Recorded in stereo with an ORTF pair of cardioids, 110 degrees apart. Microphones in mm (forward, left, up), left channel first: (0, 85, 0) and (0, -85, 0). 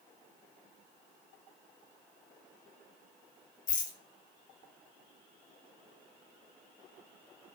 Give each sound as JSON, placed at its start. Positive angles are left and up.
{"t": 3.7, "sound": "a rattle", "azimuth_deg": 60, "distance_m": 1.2}